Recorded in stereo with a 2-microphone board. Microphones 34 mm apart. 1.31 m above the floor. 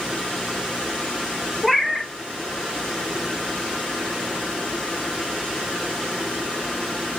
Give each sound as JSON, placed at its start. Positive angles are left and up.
{"t": 1.6, "sound": "a cat meowing", "side_deg": 5, "distance_m": 0.6}